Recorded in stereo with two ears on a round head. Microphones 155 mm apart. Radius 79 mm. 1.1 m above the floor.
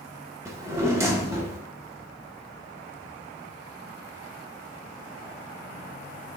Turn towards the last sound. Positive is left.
turn(degrees=-15)  # may be behind; listen again after turning